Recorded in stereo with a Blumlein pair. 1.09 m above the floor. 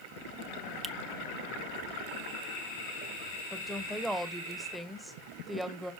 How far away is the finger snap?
About 0.7 m.